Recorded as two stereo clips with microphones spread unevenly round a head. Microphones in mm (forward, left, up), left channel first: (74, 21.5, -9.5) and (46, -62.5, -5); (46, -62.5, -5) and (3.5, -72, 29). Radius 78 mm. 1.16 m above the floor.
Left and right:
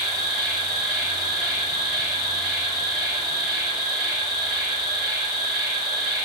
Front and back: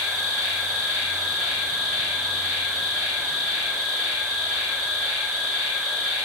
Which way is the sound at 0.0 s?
160° right.